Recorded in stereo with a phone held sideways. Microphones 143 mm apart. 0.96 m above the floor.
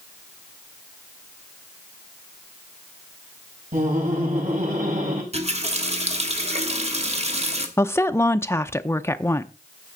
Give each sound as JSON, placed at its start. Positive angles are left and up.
{"t": 3.7, "sound": "laughter", "side_deg": -80, "distance_m": 7.0}
{"t": 5.3, "sound": "a running tap", "side_deg": -50, "distance_m": 1.3}
{"t": 7.8, "sound": "a woman speaking", "side_deg": 15, "distance_m": 0.5}